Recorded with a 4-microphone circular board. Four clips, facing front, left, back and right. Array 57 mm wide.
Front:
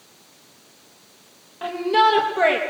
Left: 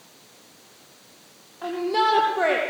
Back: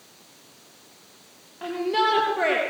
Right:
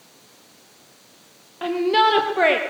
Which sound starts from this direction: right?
A shout, at 1.6 s.